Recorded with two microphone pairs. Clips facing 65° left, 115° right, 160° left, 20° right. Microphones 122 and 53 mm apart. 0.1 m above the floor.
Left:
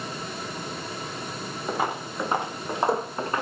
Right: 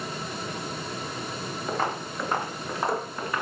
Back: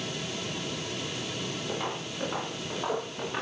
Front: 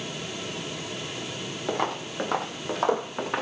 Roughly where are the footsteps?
Ahead.